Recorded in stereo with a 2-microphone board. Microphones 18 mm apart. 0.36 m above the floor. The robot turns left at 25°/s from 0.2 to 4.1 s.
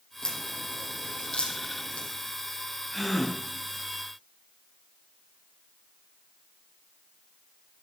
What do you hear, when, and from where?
0.2 s a crack: 30° left (ahead or behind), 5 m; by 2.1 s 75° left (ahead or behind), 5 m
2.9 s a gasp: 5° right (ahead or behind), 4 m; by 3.4 s 10° left (ahead or behind), 4 m